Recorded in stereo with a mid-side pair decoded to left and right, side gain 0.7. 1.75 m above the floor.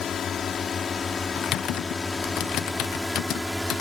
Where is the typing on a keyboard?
55° left.